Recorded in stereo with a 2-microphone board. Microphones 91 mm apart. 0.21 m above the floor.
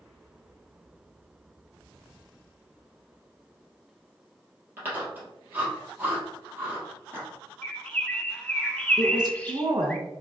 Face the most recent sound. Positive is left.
turn(degrees=-45)  # may be behind; listen again after turning